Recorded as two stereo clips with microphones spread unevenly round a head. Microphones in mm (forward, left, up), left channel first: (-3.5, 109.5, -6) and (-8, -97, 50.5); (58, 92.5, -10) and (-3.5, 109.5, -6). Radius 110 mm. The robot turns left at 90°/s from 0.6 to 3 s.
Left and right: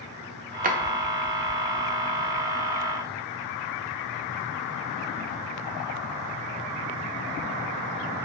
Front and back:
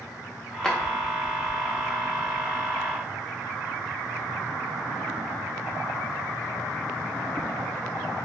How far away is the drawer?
About 0.5 m.